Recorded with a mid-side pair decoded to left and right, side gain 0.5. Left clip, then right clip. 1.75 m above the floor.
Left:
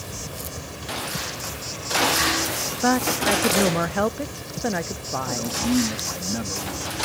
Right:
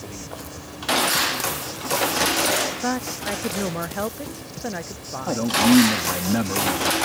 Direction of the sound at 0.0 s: 30° left.